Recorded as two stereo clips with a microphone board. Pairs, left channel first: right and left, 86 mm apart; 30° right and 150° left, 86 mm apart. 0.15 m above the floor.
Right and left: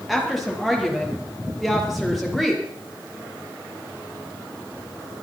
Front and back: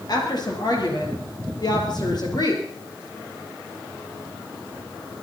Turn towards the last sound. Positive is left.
turn(degrees=0)